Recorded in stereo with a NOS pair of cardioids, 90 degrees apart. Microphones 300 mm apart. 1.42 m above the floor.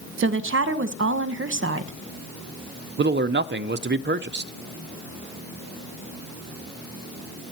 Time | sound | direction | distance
0.2 | a woman speaking | 40° right | 1.5 m
3.0 | a man speaking | 35° right | 0.8 m